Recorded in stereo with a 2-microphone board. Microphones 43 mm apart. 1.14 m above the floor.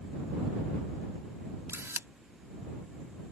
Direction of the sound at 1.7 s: 75° right (ahead or behind).